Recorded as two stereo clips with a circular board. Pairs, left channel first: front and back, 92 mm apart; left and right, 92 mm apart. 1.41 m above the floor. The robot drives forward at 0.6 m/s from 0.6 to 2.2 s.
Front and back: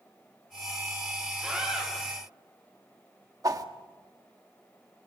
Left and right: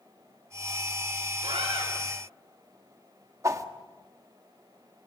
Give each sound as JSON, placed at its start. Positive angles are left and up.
{"t": 1.4, "sound": "a scream", "azimuth_deg": -100, "distance_m": 7.5}
{"t": 3.4, "sound": "a whoosh", "azimuth_deg": -140, "distance_m": 1.3}